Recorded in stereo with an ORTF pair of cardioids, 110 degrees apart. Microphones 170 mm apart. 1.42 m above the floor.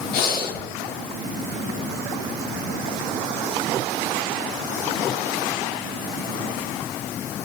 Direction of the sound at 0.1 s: 65° left.